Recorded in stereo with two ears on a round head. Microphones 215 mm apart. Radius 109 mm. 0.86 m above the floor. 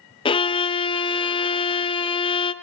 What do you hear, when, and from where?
0.2 s a violin: 20° left (ahead or behind), 0.5 m